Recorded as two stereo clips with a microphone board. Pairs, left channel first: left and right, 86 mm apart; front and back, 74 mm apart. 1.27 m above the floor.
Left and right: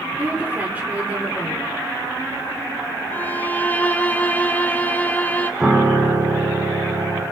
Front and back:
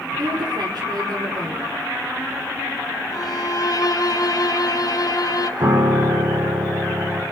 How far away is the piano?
About 4 m.